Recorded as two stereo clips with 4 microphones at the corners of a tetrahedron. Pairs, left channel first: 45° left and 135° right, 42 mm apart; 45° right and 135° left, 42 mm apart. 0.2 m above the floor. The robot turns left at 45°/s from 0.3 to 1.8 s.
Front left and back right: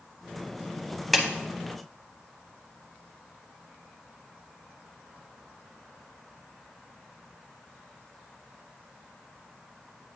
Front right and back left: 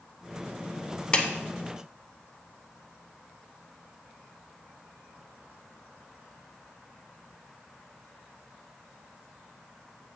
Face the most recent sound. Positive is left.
turn(degrees=-75)